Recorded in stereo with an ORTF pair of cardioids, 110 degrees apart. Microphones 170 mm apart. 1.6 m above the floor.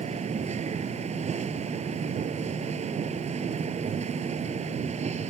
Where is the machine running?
40° right.